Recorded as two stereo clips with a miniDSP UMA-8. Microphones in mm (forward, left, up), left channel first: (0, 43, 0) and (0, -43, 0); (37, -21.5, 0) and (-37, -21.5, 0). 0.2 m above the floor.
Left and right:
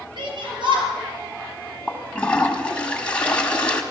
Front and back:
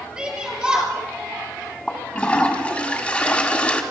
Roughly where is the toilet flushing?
Ahead left.